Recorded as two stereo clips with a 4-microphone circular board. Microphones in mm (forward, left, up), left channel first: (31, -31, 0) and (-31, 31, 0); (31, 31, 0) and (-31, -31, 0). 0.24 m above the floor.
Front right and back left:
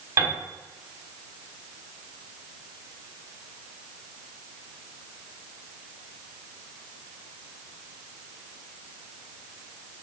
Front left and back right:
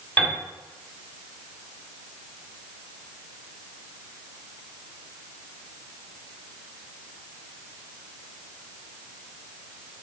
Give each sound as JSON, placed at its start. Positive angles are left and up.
{"t": 0.2, "sound": "a piano", "azimuth_deg": 105, "distance_m": 1.4}